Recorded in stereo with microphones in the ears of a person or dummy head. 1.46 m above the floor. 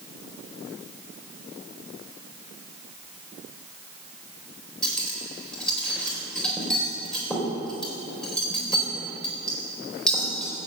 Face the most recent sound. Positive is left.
turn(degrees=10)  # may be behind; listen again after turning